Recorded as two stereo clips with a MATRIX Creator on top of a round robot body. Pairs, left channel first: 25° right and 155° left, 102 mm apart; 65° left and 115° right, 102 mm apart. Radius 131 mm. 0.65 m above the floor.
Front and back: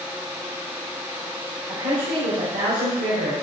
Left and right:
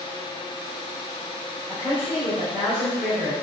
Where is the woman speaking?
145° left, 3.5 m.